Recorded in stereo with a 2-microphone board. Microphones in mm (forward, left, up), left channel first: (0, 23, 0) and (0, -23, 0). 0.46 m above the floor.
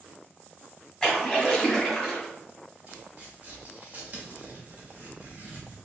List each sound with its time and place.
1.0 s a splash: 5° left (ahead or behind), 1.9 m
2.9 s tearing paper: 35° right (ahead or behind), 1.5 m